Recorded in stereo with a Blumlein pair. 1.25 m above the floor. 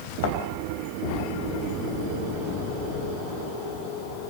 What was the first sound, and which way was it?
A thud, 50° left.